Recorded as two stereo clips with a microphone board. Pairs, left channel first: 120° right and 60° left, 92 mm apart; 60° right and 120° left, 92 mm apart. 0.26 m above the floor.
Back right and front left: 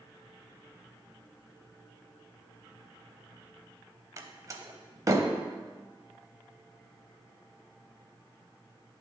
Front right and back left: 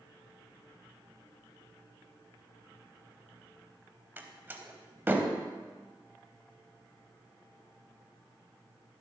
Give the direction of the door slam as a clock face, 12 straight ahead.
10 o'clock.